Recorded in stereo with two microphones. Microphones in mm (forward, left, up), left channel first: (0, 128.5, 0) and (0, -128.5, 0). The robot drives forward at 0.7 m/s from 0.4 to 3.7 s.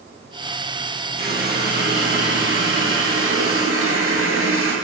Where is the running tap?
35° right (ahead or behind), 2.5 m; by 4.8 s 60° right (ahead or behind), 1.8 m.